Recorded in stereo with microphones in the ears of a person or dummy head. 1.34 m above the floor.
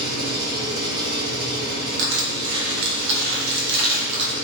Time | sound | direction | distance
0.0 | an engine running | 60° right (ahead or behind) | 1.6 m
2.0 | crushing | 60° right (ahead or behind) | 0.8 m